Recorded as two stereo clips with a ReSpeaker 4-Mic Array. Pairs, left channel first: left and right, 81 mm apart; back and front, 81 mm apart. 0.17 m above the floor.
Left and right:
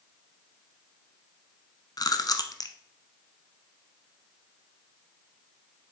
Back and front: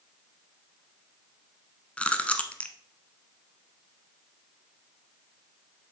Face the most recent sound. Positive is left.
turn(degrees=110)